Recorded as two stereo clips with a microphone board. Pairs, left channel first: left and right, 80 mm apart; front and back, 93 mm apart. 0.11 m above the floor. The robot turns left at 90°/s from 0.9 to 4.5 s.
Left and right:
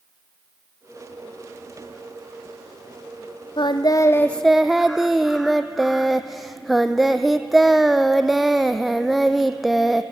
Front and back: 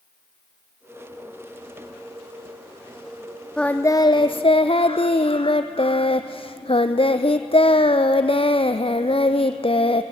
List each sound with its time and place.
3.6 s singing: 85° left, 1.3 m; by 10.0 s straight ahead, 1.3 m